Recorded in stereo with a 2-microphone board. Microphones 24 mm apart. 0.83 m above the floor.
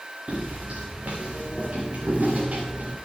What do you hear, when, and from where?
0.3 s footsteps: 70° right (ahead or behind), 4 m